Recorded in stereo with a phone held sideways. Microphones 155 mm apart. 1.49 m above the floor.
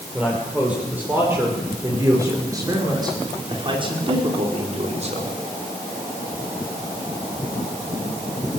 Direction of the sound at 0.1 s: 5° right (ahead or behind).